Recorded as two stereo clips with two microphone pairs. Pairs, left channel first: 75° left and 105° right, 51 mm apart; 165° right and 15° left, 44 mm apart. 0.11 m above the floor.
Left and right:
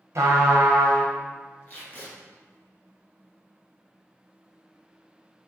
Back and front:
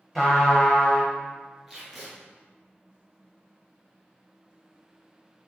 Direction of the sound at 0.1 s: 80° right.